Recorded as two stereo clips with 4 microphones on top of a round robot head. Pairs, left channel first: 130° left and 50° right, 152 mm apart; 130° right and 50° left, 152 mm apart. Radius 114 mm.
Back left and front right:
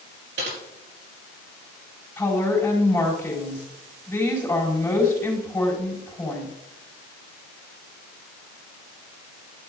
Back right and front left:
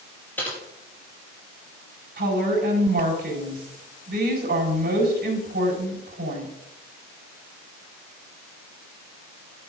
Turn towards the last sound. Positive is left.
turn(degrees=50)